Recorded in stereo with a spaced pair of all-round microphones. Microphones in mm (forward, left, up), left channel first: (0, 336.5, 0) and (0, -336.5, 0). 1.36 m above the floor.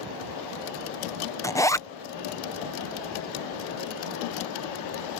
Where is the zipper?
5° left (ahead or behind).